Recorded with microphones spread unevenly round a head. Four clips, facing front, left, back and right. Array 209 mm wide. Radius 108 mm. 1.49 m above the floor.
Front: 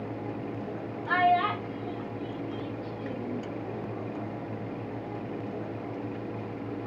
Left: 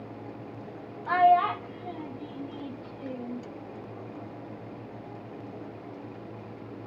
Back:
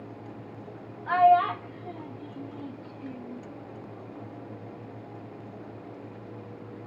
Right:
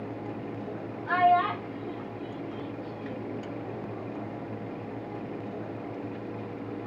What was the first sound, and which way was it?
A child speaking, 110° left.